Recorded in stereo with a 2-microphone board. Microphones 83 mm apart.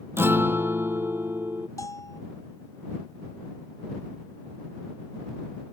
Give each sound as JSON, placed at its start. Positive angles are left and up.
{"t": 0.2, "sound": "a guitar", "side_deg": -25}
{"t": 1.8, "sound": "a bell", "side_deg": 40}